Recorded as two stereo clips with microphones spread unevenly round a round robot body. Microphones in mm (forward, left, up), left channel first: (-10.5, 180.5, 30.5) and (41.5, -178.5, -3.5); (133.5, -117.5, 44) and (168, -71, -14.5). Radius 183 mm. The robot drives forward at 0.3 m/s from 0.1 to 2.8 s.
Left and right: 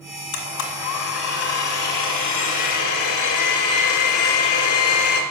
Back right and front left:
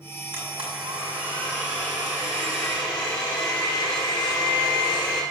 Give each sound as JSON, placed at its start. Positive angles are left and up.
{"t": 0.3, "sound": "a blender", "azimuth_deg": 100, "distance_m": 2.5}